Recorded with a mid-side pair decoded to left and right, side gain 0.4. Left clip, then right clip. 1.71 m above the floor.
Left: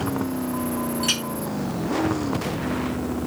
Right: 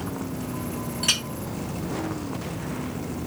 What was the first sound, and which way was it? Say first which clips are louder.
A clink: right 2 dB; 25° right.